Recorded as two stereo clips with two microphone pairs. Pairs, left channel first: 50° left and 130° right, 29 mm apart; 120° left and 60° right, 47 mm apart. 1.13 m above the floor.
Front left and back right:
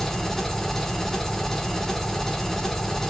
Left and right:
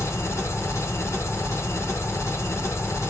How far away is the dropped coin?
I don't hear a dropped coin.